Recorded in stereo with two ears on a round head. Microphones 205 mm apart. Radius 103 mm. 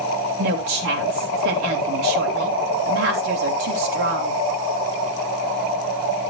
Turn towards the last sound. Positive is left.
turn(degrees=-60)  # may be behind; listen again after turning